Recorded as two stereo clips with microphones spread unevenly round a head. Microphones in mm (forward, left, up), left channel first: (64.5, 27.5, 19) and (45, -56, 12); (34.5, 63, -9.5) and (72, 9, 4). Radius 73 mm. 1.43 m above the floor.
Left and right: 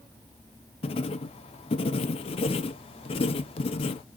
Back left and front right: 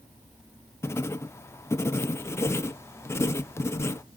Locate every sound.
0.8 s writing: 75° left, 0.6 m